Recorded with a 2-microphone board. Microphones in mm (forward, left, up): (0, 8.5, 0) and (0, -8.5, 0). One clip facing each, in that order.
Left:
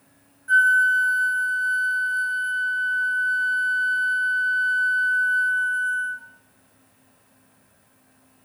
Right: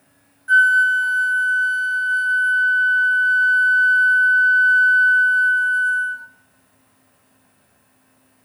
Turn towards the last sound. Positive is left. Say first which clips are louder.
# right 3 dB
turn(degrees=-20)  # may be behind; listen again after turning